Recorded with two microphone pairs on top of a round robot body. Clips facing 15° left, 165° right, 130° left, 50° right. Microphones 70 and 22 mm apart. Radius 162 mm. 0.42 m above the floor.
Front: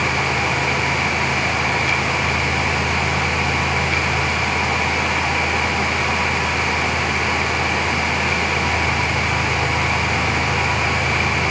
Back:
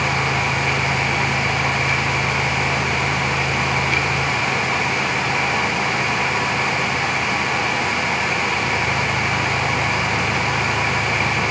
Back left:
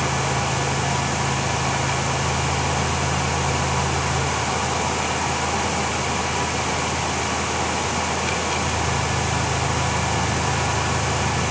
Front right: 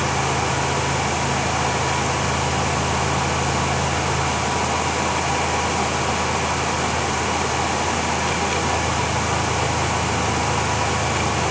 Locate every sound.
Only background noise.